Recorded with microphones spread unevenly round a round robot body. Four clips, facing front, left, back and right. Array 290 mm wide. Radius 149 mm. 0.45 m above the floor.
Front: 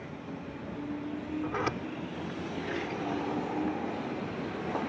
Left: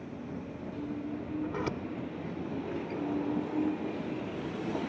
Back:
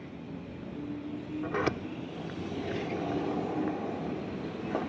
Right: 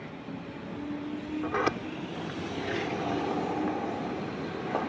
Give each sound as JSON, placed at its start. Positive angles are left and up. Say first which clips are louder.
{"t": 1.4, "sound": "a sliding door", "louder": "right 9 dB, back 4 dB", "azimuth_deg": -135}